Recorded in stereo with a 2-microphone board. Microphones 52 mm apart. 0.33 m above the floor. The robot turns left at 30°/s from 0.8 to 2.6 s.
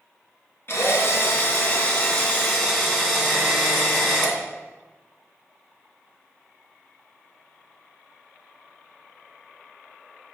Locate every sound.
0.7 s a drill: 55° left, 2.5 m; by 4.4 s straight ahead, 2.5 m